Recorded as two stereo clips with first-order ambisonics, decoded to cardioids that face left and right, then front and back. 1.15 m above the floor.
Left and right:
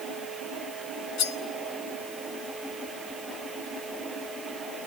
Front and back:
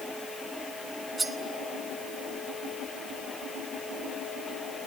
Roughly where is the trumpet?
I don't hear a trumpet.